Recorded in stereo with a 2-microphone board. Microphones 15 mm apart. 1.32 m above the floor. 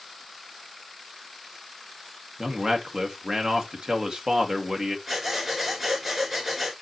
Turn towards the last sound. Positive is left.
turn(degrees=-15)  # may be behind; listen again after turning